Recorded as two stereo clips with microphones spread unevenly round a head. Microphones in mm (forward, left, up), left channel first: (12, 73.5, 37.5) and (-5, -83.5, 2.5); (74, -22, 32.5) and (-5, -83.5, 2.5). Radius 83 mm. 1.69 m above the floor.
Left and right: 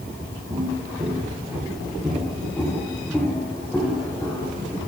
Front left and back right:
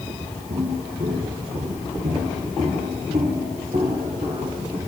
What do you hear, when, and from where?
0.5 s footsteps: 170° right, 7 m; by 4.8 s 155° left, 8 m